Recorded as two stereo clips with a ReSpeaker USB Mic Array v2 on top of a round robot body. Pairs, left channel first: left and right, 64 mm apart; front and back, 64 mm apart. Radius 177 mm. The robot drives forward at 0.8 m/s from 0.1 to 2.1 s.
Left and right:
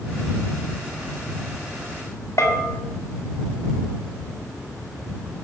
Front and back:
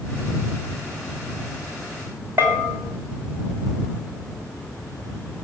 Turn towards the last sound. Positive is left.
turn(degrees=130)